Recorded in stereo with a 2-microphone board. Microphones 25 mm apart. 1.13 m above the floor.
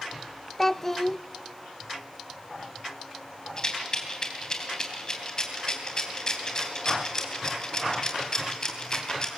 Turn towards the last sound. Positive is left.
turn(degrees=30)  # may be behind; listen again after turning